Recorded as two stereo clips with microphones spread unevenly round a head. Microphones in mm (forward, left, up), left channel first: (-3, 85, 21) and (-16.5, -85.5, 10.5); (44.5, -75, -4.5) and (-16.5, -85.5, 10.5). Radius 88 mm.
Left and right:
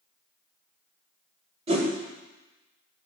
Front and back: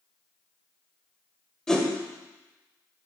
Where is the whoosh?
90° right, 1.5 m.